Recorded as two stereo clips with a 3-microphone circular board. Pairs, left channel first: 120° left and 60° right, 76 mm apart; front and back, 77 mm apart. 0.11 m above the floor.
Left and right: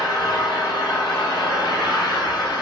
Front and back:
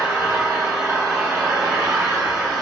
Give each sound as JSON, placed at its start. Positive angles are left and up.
{"t": 0.0, "sound": "an engine running", "azimuth_deg": 135, "distance_m": 1.7}